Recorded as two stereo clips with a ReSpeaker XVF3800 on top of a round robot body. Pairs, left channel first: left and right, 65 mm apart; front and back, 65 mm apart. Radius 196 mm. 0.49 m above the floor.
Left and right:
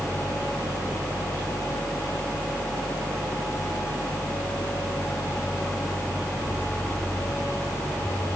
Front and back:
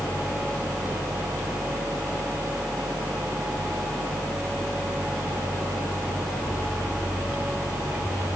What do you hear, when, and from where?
Only background noise.